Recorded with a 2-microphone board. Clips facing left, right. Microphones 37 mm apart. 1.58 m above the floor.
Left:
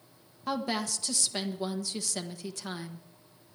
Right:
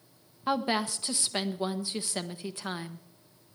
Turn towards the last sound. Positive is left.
turn(degrees=-25)  # may be behind; listen again after turning